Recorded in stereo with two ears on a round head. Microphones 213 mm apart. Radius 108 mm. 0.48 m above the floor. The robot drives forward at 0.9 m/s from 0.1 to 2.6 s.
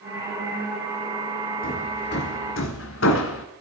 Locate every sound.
1.6 s hammering: 40° left (ahead or behind), 2 m; by 3.5 s 60° left (ahead or behind), 1.6 m